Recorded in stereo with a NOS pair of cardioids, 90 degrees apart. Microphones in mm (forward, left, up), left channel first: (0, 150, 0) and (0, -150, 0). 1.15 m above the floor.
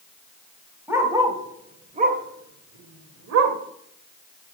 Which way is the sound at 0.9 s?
10° right.